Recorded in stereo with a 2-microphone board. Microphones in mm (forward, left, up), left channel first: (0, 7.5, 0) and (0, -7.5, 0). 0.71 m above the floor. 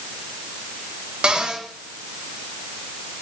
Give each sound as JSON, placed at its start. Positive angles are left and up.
{"t": 1.2, "sound": "a cupboard door", "side_deg": -80, "distance_m": 3.0}